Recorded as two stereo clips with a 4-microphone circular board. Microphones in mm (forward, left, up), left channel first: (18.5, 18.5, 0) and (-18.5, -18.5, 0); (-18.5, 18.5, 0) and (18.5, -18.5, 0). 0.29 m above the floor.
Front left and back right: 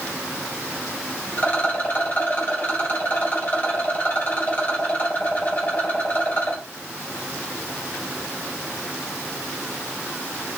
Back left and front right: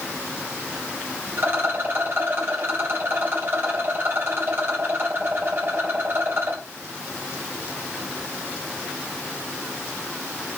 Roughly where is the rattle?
Ahead.